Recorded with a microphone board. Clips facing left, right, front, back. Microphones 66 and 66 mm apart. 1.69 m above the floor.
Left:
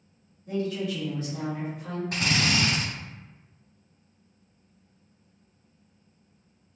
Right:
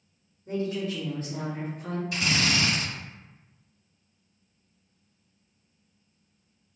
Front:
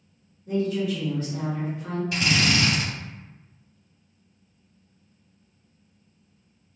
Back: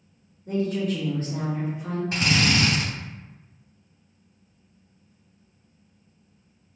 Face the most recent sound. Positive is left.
turn(degrees=130)